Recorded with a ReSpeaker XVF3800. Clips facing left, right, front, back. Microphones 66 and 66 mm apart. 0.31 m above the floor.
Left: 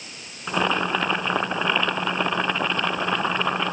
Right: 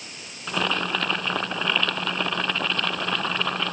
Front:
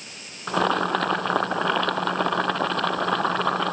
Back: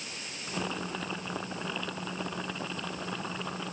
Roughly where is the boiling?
Ahead.